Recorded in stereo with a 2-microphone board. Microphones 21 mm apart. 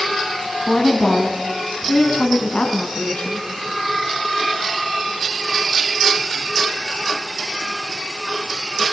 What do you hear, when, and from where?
0.7 s a woman speaking: 30° left (ahead or behind), 3 m; by 3.5 s 55° left (ahead or behind), 3.5 m